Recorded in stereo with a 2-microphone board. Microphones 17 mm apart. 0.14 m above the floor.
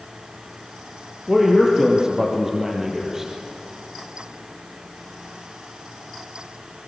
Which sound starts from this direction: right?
A man speaking, at 1.3 s.